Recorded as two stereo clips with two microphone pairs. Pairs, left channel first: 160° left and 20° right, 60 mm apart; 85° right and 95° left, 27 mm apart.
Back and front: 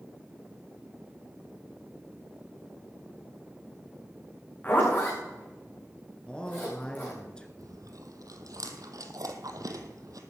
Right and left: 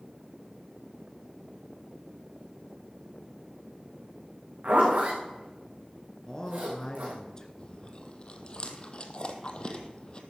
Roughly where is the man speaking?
Behind right.